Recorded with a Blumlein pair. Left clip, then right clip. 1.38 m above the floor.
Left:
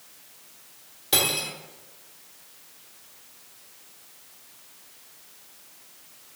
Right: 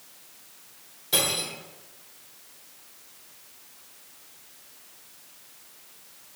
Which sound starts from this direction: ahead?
Cutlery clinking, at 1.1 s.